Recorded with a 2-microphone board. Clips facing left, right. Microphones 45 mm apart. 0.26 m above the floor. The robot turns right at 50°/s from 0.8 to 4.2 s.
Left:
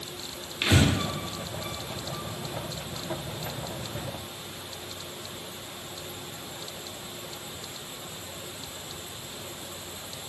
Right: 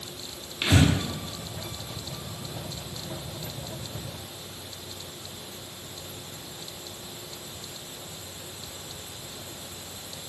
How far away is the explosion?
I don't hear an explosion.